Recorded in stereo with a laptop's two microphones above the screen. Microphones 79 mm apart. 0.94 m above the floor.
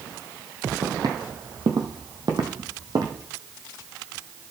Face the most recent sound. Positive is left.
turn(degrees=-50)  # may be behind; listen again after turning